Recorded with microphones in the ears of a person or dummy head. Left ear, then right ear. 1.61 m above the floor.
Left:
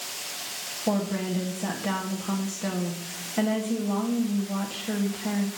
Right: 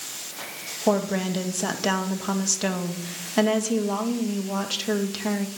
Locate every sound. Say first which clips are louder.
0.9 s a woman speaking: right 6 dB; 85° right, 1.4 m